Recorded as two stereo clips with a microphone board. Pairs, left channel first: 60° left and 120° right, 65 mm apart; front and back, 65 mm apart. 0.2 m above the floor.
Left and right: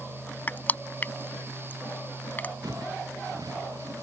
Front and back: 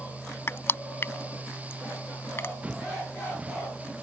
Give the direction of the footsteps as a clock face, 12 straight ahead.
4 o'clock.